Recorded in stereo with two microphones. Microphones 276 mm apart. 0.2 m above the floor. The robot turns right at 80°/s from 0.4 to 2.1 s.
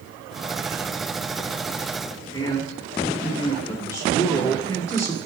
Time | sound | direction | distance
2.3 | a man speaking | 10° left (ahead or behind) | 2.5 m